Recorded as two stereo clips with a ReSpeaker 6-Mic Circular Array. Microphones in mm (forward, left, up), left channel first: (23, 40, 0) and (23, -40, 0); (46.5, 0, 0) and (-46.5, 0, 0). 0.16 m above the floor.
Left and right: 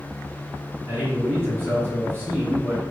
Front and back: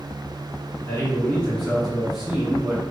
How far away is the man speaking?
About 1.9 m.